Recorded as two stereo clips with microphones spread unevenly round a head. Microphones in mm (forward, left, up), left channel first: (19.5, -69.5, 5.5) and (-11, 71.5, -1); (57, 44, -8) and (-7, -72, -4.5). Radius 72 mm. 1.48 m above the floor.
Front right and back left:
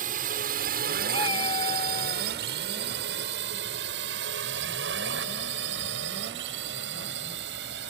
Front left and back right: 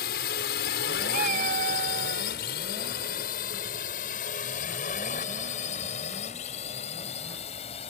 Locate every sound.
0.0 s a drone: 70° left; by 7.9 s 115° left
1.1 s a cat meowing: 130° right